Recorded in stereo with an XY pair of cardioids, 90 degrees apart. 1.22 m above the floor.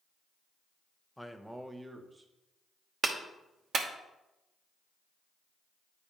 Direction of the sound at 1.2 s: 5° left.